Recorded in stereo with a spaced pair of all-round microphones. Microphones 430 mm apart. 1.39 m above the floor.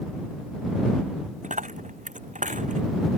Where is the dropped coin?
15° right (ahead or behind).